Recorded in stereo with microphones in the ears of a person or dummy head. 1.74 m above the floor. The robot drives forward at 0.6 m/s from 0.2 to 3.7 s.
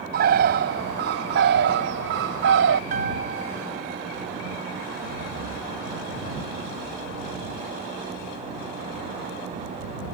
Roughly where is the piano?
Right.